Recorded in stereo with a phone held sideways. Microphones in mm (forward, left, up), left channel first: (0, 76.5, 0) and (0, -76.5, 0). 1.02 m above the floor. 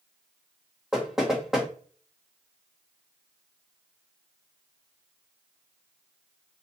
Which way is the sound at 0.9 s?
Centre (ahead or behind).